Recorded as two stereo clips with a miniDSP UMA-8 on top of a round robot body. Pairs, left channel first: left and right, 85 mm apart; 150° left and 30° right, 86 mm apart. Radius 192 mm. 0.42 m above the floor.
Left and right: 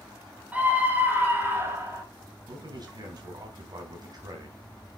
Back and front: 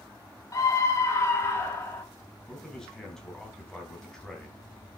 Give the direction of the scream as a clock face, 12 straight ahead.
5 o'clock.